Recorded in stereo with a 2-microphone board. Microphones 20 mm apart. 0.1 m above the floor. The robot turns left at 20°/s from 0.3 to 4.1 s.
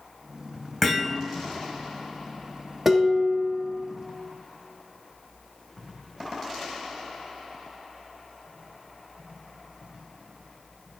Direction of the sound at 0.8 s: Centre (ahead or behind).